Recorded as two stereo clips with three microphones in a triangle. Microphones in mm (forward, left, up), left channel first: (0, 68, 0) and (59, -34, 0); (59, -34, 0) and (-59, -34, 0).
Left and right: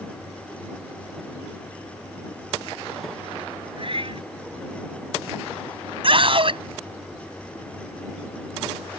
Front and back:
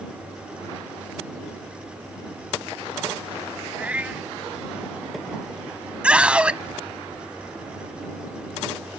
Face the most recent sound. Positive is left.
turn(degrees=-100)